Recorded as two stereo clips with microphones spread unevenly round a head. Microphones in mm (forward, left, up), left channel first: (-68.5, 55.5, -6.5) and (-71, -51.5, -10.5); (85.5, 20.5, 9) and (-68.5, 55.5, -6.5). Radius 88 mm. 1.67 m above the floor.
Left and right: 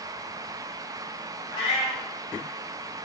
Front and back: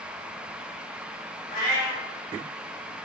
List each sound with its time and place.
1.5 s a cat meowing: 20° right, 1.7 m